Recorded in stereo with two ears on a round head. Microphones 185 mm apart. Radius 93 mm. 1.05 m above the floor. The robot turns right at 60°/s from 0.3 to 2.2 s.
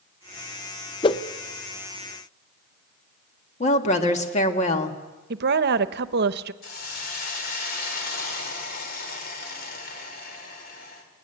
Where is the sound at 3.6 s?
35° left (ahead or behind), 1.7 m.